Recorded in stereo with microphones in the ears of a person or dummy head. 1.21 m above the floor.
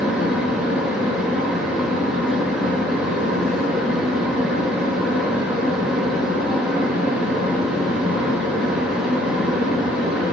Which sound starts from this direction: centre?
A fan, at 0.0 s.